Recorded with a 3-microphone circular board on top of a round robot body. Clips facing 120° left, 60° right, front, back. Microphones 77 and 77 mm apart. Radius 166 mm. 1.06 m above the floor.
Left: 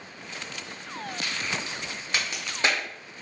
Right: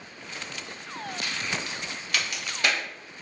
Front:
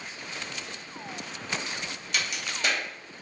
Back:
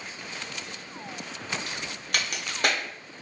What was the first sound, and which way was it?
A crack, 175° left.